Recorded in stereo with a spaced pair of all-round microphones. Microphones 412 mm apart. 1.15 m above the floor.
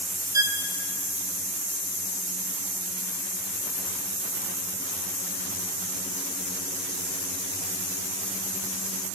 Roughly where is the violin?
Centre.